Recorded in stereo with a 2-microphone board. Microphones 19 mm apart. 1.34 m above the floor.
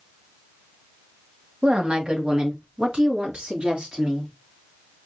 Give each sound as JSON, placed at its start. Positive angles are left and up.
{"t": 1.6, "sound": "a woman speaking", "side_deg": -75, "distance_m": 1.3}